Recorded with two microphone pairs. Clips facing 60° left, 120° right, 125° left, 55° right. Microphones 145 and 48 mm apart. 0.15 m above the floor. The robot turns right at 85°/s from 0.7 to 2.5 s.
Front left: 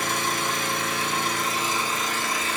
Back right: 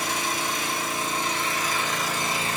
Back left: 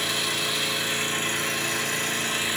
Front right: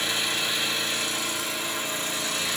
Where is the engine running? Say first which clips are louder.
Front left 1 dB, even; 40° left, 1.2 m; by 2.6 s 170° right, 1.2 m.